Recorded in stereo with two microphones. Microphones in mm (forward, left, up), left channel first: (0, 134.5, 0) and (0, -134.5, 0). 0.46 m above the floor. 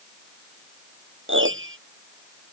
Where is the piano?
45° right (ahead or behind).